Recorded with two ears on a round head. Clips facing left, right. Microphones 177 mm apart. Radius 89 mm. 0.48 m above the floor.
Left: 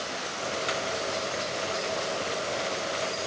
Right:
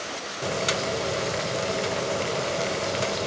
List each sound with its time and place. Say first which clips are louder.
0.4 s boiling: right 5 dB; 55° right (ahead or behind), 0.6 m